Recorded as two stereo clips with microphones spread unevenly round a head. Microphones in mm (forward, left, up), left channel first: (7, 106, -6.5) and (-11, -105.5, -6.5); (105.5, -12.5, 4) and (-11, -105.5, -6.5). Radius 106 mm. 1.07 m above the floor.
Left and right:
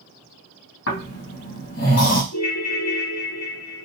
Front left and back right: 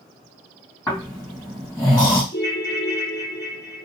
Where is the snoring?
120° left, 1.9 m.